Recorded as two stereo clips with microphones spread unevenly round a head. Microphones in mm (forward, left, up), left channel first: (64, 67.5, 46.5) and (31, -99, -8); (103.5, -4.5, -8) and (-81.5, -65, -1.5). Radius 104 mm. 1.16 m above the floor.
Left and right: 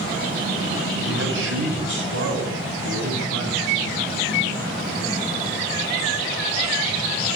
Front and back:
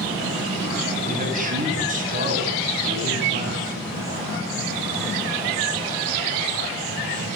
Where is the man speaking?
115° right, 8 m.